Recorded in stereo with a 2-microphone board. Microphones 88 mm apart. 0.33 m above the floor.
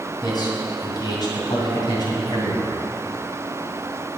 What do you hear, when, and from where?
0.2 s a man speaking: 50° left (ahead or behind), 2.5 m